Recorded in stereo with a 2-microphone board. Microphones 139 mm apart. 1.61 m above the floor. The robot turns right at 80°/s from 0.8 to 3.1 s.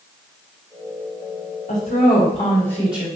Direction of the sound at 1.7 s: 85° left.